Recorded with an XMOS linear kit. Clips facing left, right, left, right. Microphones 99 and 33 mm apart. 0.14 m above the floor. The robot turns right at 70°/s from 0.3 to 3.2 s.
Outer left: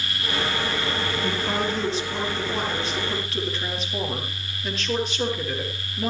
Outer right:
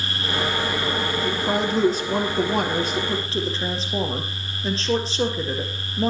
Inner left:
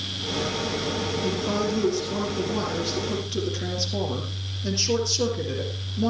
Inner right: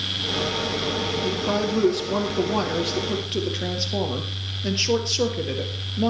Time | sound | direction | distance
1.2 | a woman speaking | 175° right | 3 m